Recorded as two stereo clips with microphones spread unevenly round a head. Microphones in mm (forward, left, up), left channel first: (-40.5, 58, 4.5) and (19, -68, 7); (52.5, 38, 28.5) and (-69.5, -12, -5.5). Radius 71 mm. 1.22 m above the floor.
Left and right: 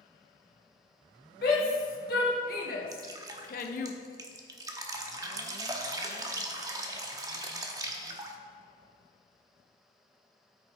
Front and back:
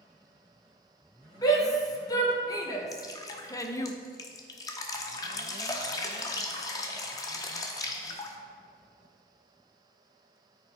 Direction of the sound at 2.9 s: 10° right.